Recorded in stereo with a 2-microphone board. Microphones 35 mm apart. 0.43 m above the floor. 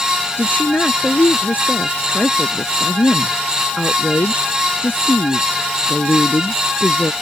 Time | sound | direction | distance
0.4 | a woman speaking | 55° left (ahead or behind) | ?